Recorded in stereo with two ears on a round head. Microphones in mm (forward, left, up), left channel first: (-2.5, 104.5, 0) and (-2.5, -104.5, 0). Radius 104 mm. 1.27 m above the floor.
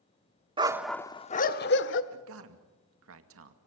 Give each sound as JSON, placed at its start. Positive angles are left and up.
{"t": 0.6, "sound": "a dog barking", "side_deg": -20, "distance_m": 1.0}
{"t": 2.1, "sound": "a man speaking", "side_deg": -65, "distance_m": 2.5}